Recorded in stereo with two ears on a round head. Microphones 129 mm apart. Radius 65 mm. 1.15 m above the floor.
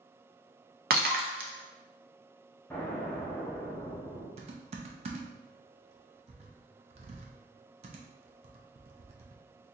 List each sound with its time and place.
0.9 s breaking glass: 70° right (ahead or behind), 0.6 m
2.7 s an explosion: 15° left (ahead or behind), 1.0 m
4.4 s typing on a keyboard: 45° right (ahead or behind), 0.6 m